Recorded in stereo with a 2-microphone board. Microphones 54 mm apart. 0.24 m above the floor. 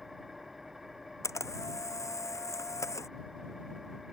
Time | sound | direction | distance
0.0 | an engine running | 5° right (ahead or behind) | ?
1.2 | a camera shutter | 70° left (ahead or behind) | ?